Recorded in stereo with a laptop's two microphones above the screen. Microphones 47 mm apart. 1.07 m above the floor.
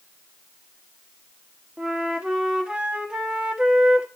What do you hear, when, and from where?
1.8 s a flute: 20° right (ahead or behind), 1.3 m